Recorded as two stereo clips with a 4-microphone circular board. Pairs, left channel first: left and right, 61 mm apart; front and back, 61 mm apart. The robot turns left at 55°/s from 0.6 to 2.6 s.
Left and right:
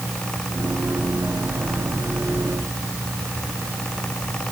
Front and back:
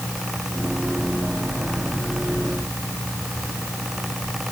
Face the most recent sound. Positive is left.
No sound to turn to.